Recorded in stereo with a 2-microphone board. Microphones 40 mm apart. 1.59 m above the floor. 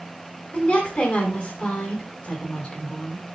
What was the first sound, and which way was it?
A woman speaking, 25° left (ahead or behind).